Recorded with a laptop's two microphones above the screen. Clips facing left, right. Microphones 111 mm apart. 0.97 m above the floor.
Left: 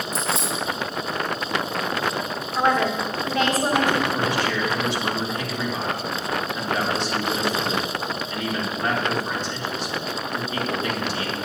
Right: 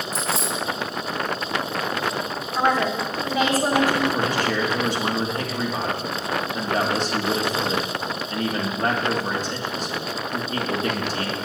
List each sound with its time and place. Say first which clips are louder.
0.1 s keys jangling: even; 45° right (ahead or behind), 4 m
2.5 s a woman speaking: even; 10° right (ahead or behind), 2 m
4.1 s a man speaking: right 1 dB; 45° right (ahead or behind), 2 m